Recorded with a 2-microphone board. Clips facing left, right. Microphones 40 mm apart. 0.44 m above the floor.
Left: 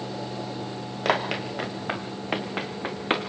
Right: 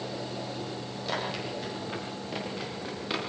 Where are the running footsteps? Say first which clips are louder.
Left 8 dB; 80° left, 4 m; by 3.2 s 45° left (ahead or behind), 3 m.